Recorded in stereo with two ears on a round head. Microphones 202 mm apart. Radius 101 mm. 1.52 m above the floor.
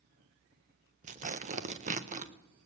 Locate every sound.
1.0 s tearing paper: 30° right (ahead or behind), 0.6 m